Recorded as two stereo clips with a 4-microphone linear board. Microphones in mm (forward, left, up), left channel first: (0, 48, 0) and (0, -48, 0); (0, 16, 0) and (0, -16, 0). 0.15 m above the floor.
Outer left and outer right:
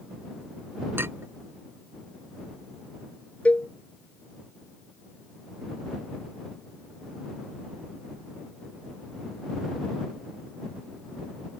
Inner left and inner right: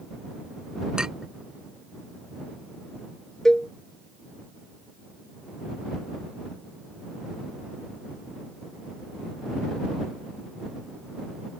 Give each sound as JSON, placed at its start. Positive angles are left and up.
{"t": 1.0, "sound": "a clink", "side_deg": -25}
{"t": 3.5, "sound": "a cowbell", "side_deg": 15}